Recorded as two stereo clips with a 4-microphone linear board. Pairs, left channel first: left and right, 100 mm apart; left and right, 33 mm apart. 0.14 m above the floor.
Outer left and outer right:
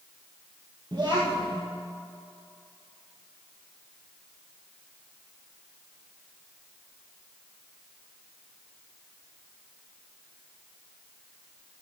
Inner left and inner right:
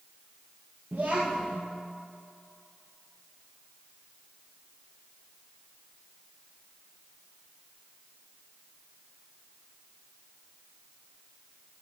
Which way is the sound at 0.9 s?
50° right (ahead or behind).